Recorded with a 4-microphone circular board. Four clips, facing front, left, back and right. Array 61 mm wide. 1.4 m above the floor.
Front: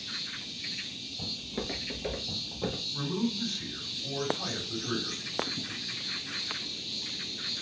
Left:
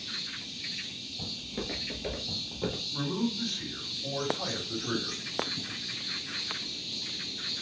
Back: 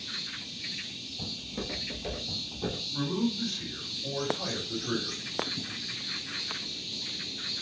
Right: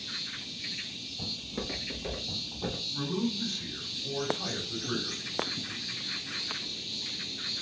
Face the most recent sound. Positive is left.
turn(degrees=100)